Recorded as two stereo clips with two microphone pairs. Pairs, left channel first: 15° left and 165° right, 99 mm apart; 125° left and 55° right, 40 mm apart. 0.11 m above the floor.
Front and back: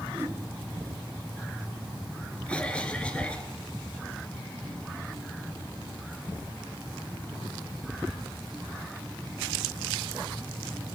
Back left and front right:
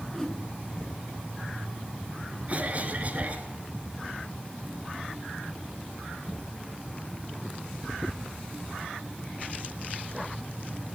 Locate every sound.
0.1 s a whoosh: straight behind, 1.4 m
2.5 s a cough: 55° right, 1.5 m